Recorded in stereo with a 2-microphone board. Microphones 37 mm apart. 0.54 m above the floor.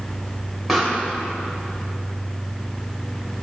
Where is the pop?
Centre (ahead or behind), 2 m.